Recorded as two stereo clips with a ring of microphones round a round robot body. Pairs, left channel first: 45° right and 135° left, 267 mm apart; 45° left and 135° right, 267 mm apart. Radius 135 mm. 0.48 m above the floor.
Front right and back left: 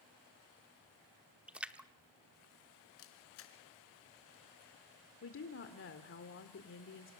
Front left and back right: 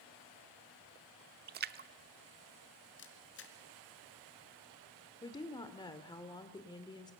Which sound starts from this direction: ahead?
A camera shutter, at 3.0 s.